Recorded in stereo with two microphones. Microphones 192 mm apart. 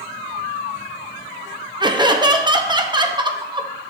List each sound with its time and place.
1.8 s laughter: 25° right (ahead or behind), 0.7 m